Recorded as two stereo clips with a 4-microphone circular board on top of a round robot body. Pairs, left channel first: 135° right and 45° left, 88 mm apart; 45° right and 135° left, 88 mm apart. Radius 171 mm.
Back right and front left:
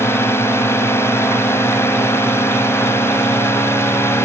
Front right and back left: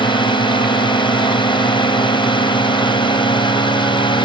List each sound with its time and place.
0.0 s a drone: 75° right